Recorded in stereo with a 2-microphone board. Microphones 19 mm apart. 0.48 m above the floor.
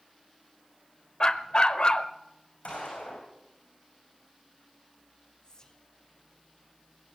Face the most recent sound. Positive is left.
turn(degrees=40)  # may be behind; listen again after turning